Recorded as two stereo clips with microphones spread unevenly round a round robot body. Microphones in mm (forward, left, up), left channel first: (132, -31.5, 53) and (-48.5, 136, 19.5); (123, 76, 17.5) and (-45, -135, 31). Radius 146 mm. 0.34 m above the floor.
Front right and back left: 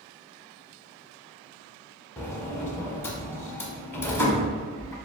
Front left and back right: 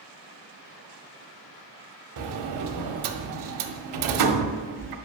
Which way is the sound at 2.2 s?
125° right.